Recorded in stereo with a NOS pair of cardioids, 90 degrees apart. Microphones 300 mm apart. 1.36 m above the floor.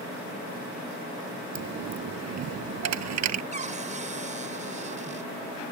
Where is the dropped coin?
65° right.